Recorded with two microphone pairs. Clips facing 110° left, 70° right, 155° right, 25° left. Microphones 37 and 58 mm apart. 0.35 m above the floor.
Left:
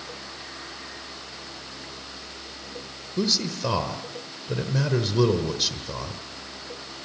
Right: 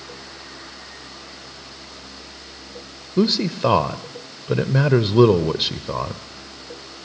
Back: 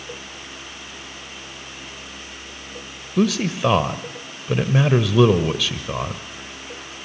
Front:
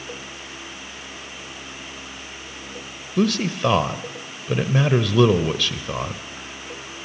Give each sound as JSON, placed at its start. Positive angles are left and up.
{"t": 3.2, "sound": "a man speaking", "azimuth_deg": -70, "distance_m": 1.1}